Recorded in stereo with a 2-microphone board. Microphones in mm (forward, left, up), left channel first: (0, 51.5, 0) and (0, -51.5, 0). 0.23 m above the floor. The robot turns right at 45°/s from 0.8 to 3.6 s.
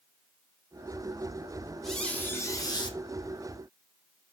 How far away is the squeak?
About 1.7 m.